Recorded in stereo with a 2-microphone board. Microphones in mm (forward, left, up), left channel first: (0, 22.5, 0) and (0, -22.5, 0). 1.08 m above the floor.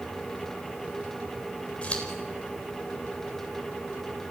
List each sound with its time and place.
1.8 s scissors: 30° left (ahead or behind), 4 m